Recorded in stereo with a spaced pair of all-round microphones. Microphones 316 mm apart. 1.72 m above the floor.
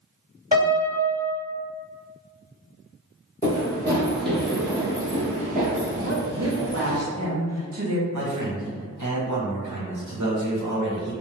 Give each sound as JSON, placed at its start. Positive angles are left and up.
{"t": 0.5, "sound": "a piano", "side_deg": -10, "distance_m": 1.6}
{"t": 3.4, "sound": "running footsteps", "side_deg": 20, "distance_m": 1.8}
{"t": 6.0, "sound": "a woman speaking", "side_deg": -50, "distance_m": 0.9}
{"t": 8.1, "sound": "a man speaking", "side_deg": -65, "distance_m": 1.2}